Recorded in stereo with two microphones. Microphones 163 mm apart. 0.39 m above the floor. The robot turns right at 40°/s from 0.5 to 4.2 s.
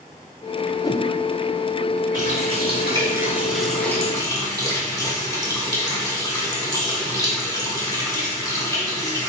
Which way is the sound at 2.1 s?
60° right.